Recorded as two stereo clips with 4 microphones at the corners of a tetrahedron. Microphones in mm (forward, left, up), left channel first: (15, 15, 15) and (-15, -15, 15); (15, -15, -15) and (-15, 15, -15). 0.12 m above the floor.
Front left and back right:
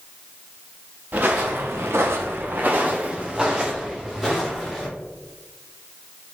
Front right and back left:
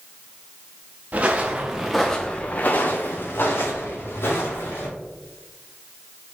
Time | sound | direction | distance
1.1 | footsteps | 175° right | 1.1 m